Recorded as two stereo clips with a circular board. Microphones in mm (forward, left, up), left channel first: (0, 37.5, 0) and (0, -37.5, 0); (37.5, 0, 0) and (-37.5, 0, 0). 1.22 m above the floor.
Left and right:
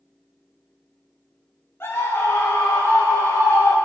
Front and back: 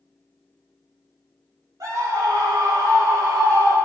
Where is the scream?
145° left, 4 m; by 3.8 s 140° left, 5 m.